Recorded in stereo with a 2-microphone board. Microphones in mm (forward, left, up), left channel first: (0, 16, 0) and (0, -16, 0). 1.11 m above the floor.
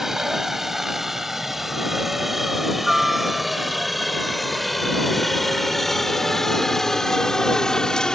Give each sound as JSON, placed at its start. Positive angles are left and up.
{"t": 0.0, "sound": "a helicopter", "side_deg": -10}